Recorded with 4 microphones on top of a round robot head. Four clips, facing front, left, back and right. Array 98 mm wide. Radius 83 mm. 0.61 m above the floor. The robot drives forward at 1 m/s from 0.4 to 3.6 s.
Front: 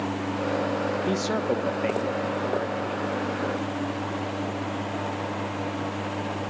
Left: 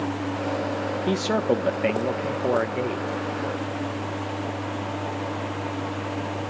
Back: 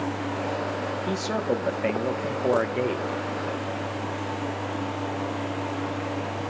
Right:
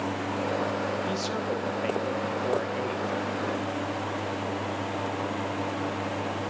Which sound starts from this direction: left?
A man speaking, at 1.1 s.